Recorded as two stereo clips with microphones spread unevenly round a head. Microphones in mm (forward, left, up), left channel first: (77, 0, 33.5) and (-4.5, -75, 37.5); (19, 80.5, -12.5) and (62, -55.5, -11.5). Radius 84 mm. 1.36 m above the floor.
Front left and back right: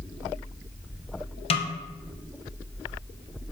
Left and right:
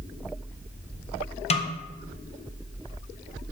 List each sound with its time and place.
1.5 s a snare drum: 70° left, 0.7 m